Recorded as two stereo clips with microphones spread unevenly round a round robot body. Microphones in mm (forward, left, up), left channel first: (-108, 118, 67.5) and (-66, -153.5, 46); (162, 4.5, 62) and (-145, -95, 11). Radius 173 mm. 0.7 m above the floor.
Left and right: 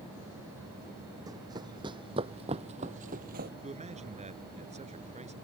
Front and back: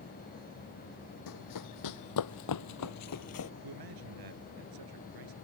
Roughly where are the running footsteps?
Ahead.